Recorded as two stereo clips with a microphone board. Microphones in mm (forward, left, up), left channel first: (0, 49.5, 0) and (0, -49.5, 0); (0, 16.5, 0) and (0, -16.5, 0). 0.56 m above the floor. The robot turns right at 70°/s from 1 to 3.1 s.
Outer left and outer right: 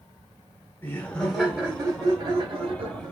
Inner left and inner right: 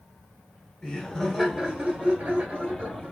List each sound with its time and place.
0.8 s laughter: 160° left, 1.4 m; by 3.1 s 55° right, 1.4 m